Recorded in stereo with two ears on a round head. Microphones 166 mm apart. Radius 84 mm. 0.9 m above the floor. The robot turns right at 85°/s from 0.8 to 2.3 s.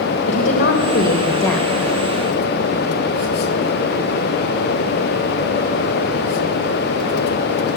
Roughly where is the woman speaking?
Left.